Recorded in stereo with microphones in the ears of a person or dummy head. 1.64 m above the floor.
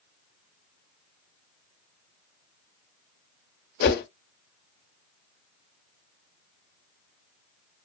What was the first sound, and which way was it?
A whoosh, 55° left (ahead or behind).